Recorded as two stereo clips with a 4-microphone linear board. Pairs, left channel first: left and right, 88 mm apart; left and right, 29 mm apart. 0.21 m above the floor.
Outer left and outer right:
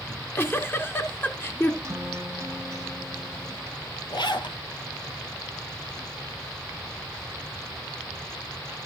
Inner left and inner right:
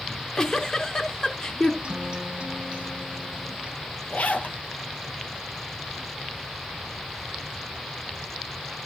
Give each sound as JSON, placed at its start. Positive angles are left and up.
{"t": 0.1, "sound": "a giggle", "side_deg": 25, "distance_m": 1.9}
{"t": 1.8, "sound": "a guitar", "side_deg": -35, "distance_m": 1.2}
{"t": 4.1, "sound": "a zipper", "side_deg": 60, "distance_m": 1.6}